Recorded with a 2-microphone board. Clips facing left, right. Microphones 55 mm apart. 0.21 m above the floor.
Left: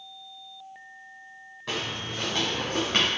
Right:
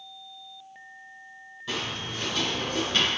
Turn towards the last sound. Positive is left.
turn(degrees=60)  # may be behind; listen again after turning